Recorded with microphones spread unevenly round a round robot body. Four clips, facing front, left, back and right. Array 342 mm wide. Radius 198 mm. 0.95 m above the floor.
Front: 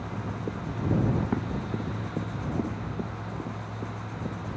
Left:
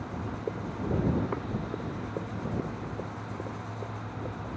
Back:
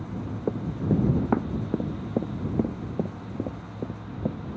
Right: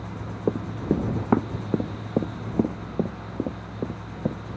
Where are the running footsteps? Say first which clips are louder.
Right 9 dB, back 4 dB; 120° right; by 4.4 s 125° right.